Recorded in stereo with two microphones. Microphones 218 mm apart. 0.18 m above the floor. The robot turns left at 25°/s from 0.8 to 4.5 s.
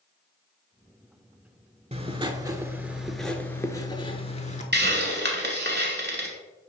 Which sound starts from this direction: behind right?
Writing, at 1.9 s.